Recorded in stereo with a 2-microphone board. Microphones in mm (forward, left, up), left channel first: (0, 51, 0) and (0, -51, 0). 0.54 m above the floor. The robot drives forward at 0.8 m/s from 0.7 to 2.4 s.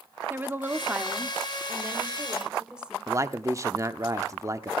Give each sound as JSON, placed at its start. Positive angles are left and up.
{"t": 0.3, "sound": "a woman speaking", "side_deg": -20, "distance_m": 0.9}
{"t": 3.1, "sound": "a man speaking", "side_deg": -30, "distance_m": 0.9}